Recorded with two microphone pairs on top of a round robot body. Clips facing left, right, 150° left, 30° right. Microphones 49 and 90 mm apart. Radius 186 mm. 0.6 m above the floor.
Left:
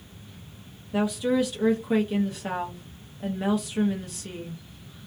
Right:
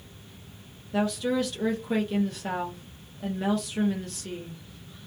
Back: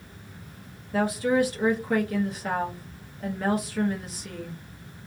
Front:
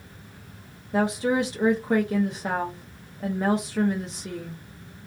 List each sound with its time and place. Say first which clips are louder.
0.9 s a woman speaking: left 2 dB, even; 15° left, 0.8 m